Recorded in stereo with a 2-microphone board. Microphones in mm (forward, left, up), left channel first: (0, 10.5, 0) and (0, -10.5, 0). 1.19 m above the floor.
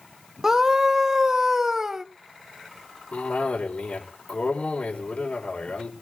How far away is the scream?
About 1.1 m.